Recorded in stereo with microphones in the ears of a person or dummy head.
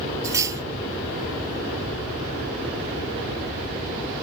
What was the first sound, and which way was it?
Cutlery clinking, 15° right (ahead or behind).